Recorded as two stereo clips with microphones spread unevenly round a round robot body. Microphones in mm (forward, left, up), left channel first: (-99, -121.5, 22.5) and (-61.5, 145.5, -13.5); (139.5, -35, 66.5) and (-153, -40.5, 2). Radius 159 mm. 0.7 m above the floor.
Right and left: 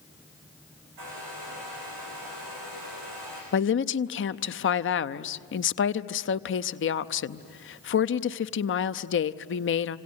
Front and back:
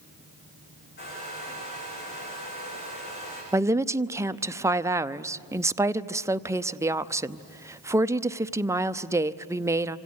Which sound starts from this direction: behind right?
A woman speaking, at 3.5 s.